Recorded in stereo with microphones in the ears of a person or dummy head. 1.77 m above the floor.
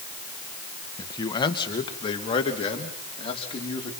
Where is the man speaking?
25° left (ahead or behind), 1.4 m; by 3.9 s 35° left (ahead or behind), 4 m.